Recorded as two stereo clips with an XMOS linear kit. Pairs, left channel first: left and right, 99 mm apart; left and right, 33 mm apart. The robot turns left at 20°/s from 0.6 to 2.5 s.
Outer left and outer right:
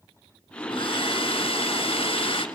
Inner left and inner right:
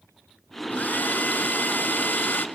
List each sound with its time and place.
0.7 s a hair dryer: 105° left, 1.6 m; by 2.5 s 70° left, 1.6 m